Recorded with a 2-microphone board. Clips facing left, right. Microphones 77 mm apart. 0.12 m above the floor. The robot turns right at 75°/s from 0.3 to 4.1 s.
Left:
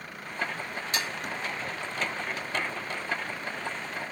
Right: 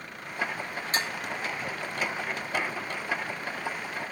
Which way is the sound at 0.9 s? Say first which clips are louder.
Right 3 dB; 35° right (ahead or behind).